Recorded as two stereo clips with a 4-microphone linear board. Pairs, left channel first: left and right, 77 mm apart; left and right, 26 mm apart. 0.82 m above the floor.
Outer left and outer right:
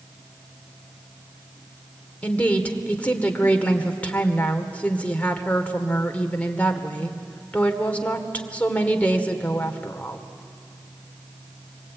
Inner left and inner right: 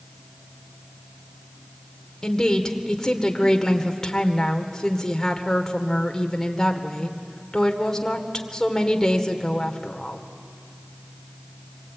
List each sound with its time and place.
2.2 s a woman speaking: 20° left (ahead or behind), 2 m